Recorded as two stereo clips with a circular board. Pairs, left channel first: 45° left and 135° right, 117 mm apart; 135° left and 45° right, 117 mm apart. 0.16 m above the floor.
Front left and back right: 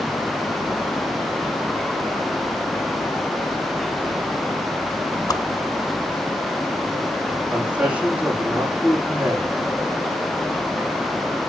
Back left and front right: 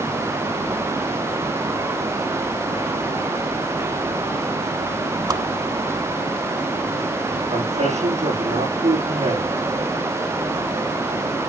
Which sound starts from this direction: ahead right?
A man speaking, at 7.5 s.